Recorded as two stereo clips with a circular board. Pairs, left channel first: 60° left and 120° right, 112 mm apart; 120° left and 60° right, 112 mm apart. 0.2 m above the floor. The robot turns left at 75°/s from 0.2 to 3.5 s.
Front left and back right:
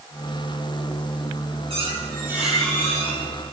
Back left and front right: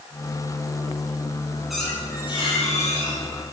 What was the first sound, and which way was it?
A squeak, 150° right.